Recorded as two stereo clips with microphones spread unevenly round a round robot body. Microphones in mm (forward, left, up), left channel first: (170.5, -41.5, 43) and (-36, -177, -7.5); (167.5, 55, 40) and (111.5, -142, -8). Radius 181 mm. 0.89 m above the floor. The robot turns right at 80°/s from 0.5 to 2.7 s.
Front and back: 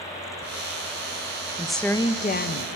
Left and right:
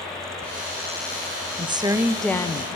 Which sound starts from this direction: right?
A woman speaking, at 1.6 s.